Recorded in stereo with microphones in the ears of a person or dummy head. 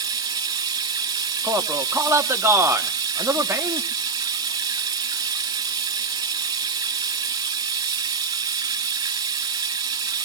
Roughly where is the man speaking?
Centre.